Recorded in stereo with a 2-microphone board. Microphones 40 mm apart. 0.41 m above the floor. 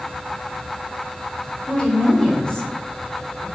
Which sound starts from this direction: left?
A woman speaking, at 1.7 s.